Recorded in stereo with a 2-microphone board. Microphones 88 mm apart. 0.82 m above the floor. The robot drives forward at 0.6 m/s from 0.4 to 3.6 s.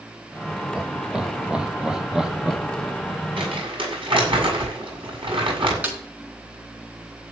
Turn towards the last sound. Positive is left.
turn(degrees=-15)  # may be behind; listen again after turning